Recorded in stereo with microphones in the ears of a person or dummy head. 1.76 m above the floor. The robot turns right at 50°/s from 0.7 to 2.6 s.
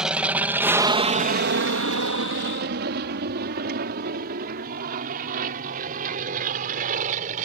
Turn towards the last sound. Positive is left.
turn(degrees=-40)  # may be behind; listen again after turning